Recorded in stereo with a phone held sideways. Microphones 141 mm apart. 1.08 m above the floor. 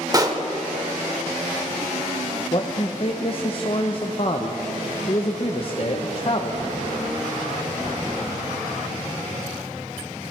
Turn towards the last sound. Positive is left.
turn(degrees=40)  # may be behind; listen again after turning